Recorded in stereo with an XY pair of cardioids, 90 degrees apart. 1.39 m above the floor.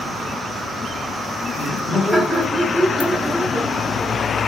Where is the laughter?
20° left, 4 m; by 4.2 s 5° right, 2.5 m.